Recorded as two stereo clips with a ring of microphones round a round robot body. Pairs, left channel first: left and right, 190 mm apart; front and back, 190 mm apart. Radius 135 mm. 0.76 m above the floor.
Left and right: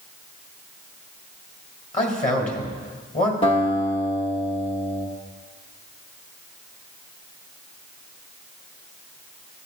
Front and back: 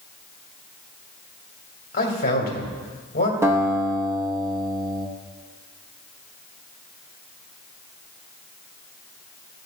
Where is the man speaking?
40° left, 2.5 m.